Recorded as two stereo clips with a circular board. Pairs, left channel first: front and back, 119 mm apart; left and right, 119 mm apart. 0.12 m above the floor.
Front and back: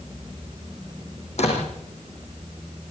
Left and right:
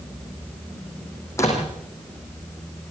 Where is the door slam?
25° left, 5.5 m.